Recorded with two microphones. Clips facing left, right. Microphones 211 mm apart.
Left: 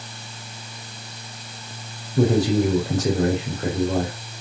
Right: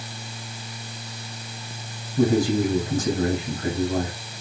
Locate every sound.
2.2 s a man speaking: 70° left (ahead or behind), 4 m